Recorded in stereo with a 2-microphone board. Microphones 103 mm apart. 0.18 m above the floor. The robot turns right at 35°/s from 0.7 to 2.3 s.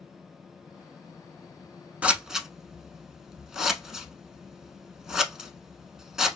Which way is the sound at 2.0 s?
15° right (ahead or behind).